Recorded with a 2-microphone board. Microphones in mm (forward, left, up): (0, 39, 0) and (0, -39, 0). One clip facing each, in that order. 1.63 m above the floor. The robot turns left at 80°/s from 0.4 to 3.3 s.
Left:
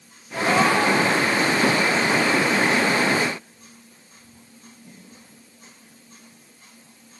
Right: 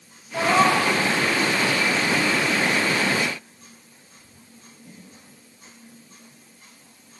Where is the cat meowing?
160° right, 4 m; by 0.9 s 155° left, 4 m.